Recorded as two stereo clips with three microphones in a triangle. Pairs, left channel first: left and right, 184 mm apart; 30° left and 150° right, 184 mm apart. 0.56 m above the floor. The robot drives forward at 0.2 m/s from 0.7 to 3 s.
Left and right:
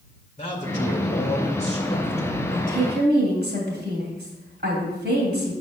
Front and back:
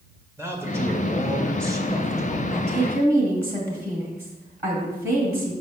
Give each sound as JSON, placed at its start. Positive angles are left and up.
{"t": 0.4, "sound": "a man speaking", "azimuth_deg": 135, "distance_m": 1.8}
{"t": 2.5, "sound": "a woman speaking", "azimuth_deg": -110, "distance_m": 2.5}